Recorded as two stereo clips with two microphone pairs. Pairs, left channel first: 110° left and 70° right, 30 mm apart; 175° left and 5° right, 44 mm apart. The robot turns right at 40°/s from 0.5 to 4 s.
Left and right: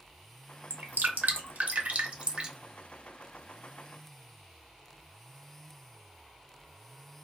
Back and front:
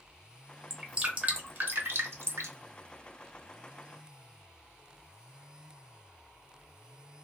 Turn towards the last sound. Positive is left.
turn(degrees=45)